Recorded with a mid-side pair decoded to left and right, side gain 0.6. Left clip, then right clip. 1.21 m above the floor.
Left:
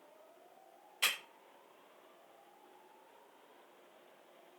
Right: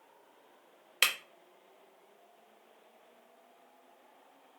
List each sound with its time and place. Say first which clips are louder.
1.0 s breaking glass: right 5 dB; 70° right, 1.1 m